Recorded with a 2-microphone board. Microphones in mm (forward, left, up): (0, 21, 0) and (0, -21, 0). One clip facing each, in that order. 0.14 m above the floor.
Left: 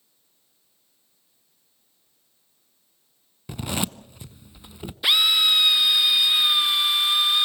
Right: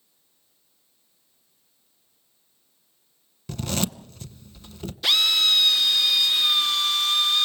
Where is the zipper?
15° left (ahead or behind), 0.6 m.